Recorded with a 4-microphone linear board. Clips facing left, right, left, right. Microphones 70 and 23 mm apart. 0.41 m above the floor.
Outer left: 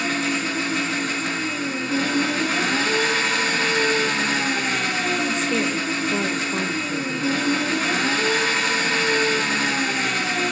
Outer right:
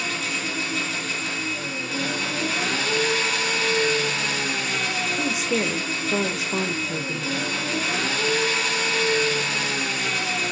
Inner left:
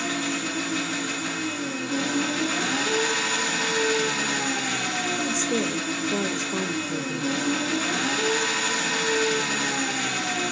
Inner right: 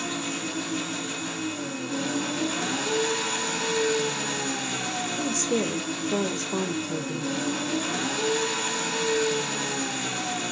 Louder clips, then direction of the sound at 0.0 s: Outer left 5 dB, inner left 3 dB; 40° left (ahead or behind).